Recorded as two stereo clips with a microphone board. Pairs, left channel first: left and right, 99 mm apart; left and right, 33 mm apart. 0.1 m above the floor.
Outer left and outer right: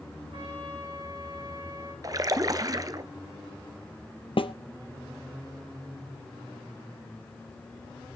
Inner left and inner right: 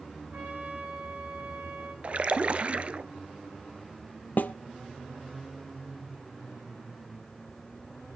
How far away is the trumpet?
About 7 m.